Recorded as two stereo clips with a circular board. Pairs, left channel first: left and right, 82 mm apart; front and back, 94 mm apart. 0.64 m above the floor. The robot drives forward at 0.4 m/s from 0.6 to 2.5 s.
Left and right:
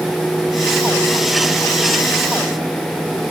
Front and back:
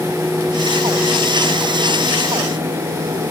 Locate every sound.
Only background noise.